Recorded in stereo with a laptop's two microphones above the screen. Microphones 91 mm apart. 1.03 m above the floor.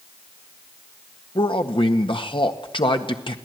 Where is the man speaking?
65° left (ahead or behind), 1.7 m.